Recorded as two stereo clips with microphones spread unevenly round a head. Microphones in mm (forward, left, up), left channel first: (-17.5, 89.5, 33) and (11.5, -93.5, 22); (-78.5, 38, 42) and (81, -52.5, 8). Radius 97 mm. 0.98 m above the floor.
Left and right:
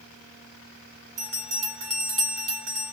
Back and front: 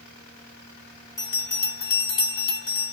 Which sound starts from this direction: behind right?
A bell, at 1.2 s.